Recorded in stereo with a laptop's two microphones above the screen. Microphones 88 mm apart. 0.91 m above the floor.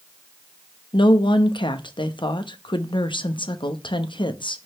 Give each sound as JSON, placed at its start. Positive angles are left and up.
{"t": 0.9, "sound": "a woman speaking", "side_deg": 65, "distance_m": 0.8}